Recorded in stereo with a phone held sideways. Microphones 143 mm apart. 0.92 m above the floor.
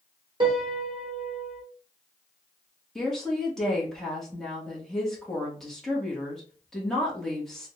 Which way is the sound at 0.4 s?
35° right (ahead or behind).